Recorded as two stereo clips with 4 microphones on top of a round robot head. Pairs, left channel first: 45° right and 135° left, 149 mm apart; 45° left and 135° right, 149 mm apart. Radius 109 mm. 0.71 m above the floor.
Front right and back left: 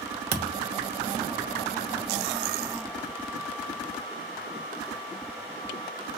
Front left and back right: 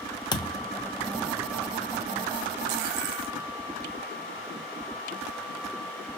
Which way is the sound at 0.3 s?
105° left.